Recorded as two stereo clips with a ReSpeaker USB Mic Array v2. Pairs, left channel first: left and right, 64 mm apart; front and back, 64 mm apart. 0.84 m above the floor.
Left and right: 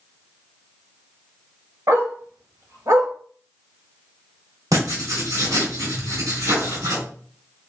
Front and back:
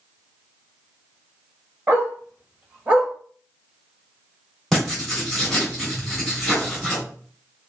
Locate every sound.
1.9 s a dog barking: 120° right, 2.0 m; by 3.1 s 105° right, 1.4 m
4.7 s writing: 90° right, 3 m